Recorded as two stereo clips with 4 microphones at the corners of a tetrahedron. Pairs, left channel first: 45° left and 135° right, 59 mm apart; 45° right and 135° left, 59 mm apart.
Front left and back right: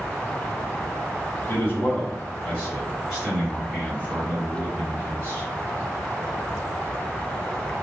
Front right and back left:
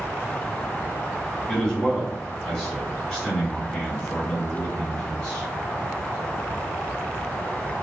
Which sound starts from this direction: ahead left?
A man speaking, at 1.5 s.